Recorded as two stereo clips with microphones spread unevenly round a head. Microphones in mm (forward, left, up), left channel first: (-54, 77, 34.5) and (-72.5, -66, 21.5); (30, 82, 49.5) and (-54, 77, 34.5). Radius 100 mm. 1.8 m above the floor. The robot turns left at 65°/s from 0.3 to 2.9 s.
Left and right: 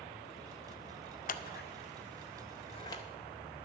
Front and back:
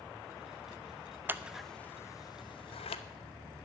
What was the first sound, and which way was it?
Scissors, 115° left.